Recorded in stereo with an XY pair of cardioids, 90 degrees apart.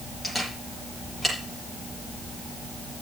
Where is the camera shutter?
10° left, 8.5 m.